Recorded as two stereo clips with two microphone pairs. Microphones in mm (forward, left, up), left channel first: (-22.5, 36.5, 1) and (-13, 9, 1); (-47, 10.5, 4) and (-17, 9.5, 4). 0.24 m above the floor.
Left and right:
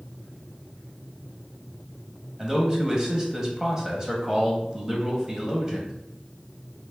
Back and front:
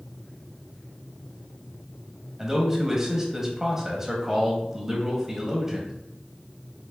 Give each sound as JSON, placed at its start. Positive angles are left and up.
{"t": 2.4, "sound": "a man speaking", "azimuth_deg": -50, "distance_m": 0.9}